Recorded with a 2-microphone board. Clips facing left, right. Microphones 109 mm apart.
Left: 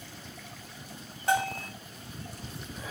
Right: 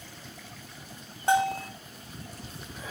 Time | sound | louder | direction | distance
1.3 | a bell | right 4 dB | 25° right (ahead or behind) | 0.7 m